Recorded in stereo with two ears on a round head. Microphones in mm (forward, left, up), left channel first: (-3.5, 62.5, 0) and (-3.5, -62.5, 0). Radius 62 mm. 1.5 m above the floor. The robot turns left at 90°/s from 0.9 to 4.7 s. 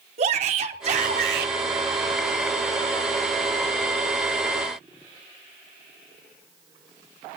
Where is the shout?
50° right, 3.5 m; by 1.6 s 110° right, 3.5 m.